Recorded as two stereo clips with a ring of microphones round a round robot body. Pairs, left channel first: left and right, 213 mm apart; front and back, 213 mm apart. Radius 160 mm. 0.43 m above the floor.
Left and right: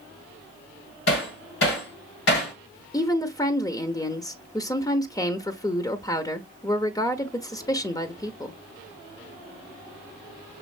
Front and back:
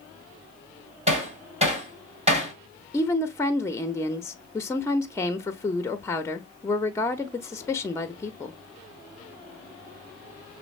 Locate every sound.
1.1 s hammering: 120° left, 2.5 m
2.9 s a woman speaking: 50° left, 0.7 m